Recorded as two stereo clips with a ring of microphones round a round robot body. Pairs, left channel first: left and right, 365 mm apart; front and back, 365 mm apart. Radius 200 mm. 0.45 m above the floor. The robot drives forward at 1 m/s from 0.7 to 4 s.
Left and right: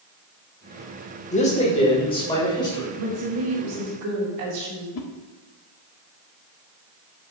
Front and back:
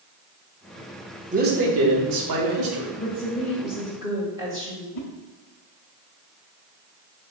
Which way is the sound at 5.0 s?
55° left.